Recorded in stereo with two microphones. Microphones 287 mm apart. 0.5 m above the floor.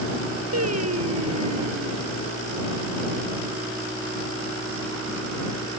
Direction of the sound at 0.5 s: 60° right (ahead or behind).